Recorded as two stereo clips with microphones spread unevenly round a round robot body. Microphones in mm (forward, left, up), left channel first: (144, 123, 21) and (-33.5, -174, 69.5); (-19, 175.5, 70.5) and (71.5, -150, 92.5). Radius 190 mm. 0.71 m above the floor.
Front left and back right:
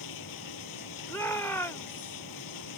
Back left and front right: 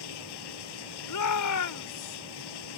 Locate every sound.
0.0 s running water: 100° left
1.1 s a shout: 140° left